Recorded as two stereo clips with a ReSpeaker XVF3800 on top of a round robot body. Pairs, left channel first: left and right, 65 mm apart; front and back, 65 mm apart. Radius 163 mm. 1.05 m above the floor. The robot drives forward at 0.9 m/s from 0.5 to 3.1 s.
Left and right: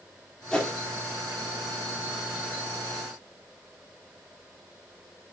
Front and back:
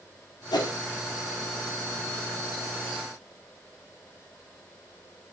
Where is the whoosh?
5° left, 2.0 m.